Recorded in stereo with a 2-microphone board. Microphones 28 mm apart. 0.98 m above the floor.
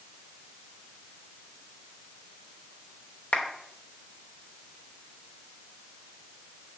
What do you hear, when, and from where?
3.3 s a clap: 70° left (ahead or behind), 3 m